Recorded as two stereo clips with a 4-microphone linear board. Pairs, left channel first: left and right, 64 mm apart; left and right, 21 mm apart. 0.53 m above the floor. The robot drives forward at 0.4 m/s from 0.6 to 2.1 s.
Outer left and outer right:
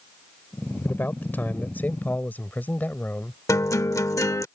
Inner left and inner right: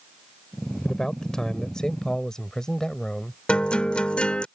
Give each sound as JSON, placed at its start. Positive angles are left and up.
{"t": 0.8, "sound": "a man speaking", "side_deg": 35}
{"t": 3.5, "sound": "a guitar", "side_deg": 65}